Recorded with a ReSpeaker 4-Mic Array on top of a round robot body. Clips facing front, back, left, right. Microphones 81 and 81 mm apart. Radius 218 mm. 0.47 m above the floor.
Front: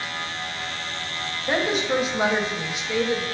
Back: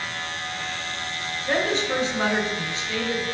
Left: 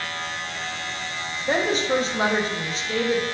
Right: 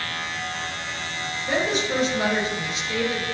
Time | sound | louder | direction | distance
1.5 | a woman speaking | front 1 dB, left 2 dB | 70° left | 0.8 m